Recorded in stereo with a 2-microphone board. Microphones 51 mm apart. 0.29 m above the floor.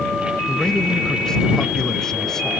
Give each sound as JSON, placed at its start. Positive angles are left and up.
{"t": 0.5, "sound": "a man speaking", "side_deg": 15}